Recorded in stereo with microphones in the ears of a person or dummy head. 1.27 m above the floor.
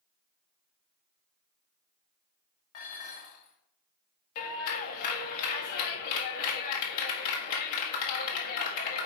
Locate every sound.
2.7 s dishes clattering: 45° left (ahead or behind), 1.5 m
4.3 s a clap: 70° left (ahead or behind), 1.5 m